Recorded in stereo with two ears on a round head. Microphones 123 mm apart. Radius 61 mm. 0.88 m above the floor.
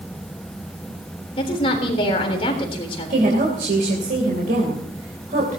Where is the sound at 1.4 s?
40° left (ahead or behind), 3.5 m.